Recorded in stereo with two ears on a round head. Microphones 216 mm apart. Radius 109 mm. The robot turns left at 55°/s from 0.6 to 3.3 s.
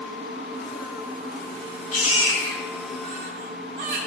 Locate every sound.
1.9 s a baby crying: 35° left (ahead or behind), 2.5 m; by 4.0 s 45° right (ahead or behind), 2.5 m